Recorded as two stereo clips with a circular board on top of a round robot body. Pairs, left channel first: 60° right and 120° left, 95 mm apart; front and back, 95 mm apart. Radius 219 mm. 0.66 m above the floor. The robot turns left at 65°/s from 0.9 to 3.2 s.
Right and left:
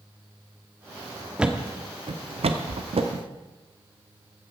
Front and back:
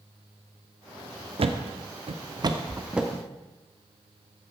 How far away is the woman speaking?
No woman speaking in this recording.